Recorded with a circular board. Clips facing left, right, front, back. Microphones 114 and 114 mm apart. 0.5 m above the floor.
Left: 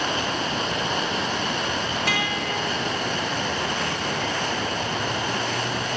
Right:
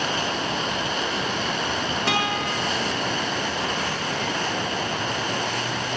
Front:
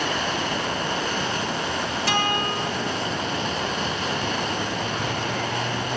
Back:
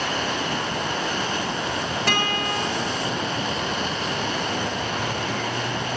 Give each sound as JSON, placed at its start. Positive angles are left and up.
{"t": 2.1, "sound": "a guitar", "azimuth_deg": -150, "distance_m": 1.9}